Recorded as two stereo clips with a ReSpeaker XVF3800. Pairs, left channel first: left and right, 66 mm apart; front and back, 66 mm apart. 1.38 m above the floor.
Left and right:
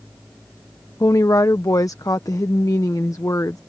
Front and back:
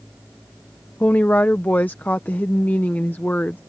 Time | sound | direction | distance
1.0 | a woman speaking | 60° left | ?